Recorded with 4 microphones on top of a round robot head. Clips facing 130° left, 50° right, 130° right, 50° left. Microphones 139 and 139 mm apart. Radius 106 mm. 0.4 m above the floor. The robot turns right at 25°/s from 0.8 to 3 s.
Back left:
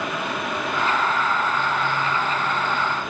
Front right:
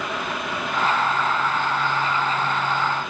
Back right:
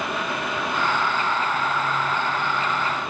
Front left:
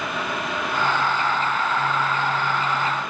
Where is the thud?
No thud in this recording.